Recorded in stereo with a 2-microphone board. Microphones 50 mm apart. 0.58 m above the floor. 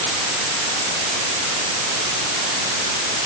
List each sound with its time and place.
Only background noise.